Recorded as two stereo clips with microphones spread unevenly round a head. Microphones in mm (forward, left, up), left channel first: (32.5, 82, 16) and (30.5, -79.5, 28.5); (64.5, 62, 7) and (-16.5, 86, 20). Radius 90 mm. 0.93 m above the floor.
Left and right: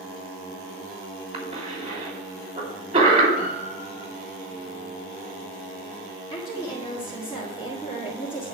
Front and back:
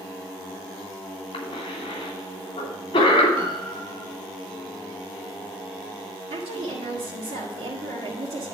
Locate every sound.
1.3 s a cough: 50° right, 2.5 m
3.4 s a piano: 155° left, 3 m
6.3 s a woman speaking: 165° left, 1.8 m